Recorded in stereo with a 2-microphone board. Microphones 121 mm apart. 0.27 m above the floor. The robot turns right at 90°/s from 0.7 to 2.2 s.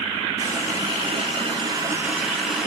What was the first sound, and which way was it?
A running tap, 140° right.